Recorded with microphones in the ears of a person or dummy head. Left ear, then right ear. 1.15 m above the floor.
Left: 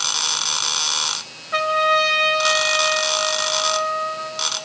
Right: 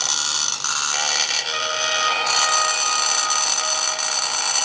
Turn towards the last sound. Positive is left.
turn(degrees=35)  # may be behind; listen again after turning